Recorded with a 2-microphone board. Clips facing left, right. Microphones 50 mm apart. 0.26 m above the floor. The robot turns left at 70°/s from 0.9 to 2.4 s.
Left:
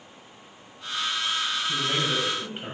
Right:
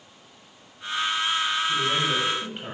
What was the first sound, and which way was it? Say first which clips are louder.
A man speaking: right 2 dB; 55° left.